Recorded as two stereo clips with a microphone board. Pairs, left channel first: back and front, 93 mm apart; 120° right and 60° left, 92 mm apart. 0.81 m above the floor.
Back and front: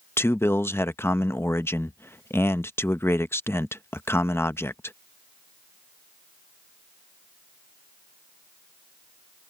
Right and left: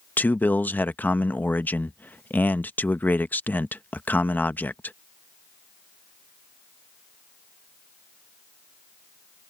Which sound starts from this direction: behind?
A man speaking, at 0.2 s.